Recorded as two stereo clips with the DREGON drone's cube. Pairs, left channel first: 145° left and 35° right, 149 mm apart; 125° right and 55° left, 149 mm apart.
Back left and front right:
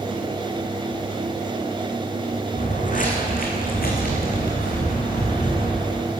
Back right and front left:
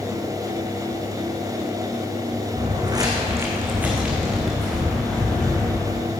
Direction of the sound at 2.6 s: 110° left.